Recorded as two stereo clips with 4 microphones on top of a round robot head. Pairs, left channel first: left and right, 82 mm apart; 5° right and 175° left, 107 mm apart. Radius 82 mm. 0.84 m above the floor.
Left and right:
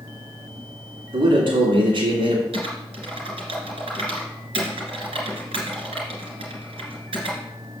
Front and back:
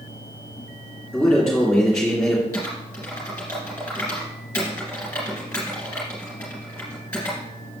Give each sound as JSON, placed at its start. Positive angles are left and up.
{"t": 1.1, "sound": "a man speaking", "azimuth_deg": -90, "distance_m": 2.5}
{"t": 2.5, "sound": "typing on a keyboard", "azimuth_deg": -85, "distance_m": 2.5}